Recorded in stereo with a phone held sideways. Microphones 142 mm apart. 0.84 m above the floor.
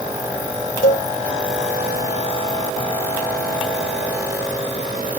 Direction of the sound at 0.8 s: 80° left.